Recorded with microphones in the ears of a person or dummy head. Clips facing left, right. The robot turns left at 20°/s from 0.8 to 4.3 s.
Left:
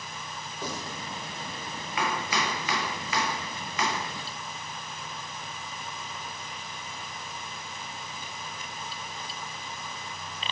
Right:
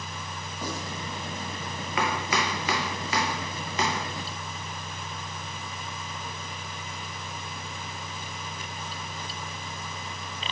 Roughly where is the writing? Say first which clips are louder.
Right 2 dB; right.